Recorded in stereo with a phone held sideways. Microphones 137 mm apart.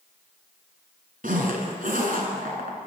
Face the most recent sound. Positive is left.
turn(degrees=-80)